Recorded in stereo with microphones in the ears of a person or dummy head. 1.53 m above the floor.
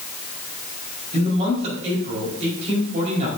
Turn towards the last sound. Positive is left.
turn(degrees=-40)  # may be behind; listen again after turning